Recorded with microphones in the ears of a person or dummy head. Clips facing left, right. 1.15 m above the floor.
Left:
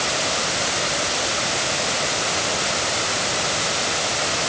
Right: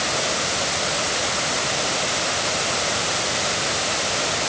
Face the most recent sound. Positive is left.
No sound to turn to.